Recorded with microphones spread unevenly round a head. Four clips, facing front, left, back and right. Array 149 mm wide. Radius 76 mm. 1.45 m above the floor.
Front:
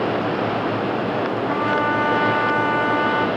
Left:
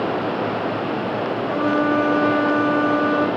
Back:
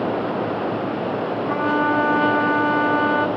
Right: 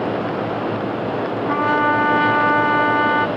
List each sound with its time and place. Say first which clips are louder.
1.5 s a trumpet: right 2 dB, back 2 dB; 70° right, 2.5 m